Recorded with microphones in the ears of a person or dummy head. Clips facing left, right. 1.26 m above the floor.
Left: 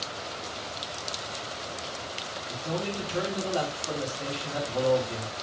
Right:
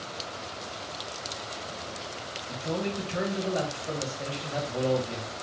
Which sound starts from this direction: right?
A man speaking, at 2.5 s.